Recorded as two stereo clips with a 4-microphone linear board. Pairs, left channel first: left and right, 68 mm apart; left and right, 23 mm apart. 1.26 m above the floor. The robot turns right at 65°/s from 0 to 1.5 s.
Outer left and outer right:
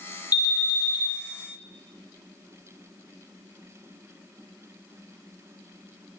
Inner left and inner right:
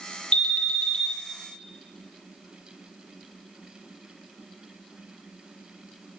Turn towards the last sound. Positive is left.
turn(degrees=140)